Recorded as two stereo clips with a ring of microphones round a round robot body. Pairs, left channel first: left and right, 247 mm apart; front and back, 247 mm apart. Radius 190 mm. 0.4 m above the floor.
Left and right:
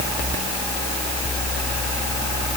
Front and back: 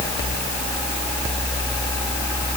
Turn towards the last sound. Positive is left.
No sound to turn to.